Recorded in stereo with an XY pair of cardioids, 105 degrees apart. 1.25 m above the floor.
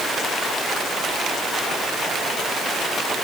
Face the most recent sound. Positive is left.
No sound to turn to.